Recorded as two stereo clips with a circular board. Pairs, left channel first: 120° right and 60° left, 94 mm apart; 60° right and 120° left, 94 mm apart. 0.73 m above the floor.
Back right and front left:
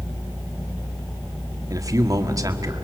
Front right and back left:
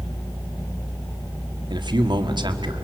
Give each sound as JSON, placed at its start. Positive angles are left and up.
{"t": 1.7, "sound": "a man speaking", "azimuth_deg": 105, "distance_m": 1.8}